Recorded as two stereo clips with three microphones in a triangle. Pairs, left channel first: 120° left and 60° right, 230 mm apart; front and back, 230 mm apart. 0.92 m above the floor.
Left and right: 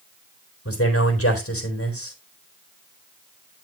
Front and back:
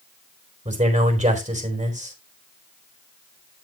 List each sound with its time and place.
0.7 s a man speaking: 120° left, 3.5 m